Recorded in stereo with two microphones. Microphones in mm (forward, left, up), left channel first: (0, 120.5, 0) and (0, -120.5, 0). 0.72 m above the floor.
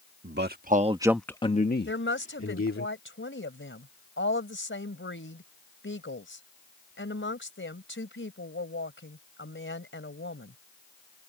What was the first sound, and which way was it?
A man speaking, 50° right (ahead or behind).